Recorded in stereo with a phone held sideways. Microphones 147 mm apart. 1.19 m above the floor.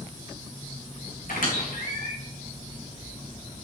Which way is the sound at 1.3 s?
70° left (ahead or behind).